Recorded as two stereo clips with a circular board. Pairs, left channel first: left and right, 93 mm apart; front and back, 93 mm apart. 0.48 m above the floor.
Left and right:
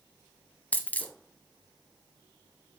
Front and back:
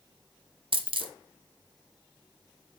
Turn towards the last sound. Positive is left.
turn(degrees=165)